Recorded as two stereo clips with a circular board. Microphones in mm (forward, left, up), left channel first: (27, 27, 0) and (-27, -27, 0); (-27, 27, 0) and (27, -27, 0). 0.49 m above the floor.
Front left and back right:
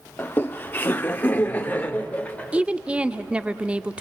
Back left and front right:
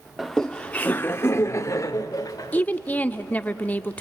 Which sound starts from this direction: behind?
A woman speaking, at 2.5 s.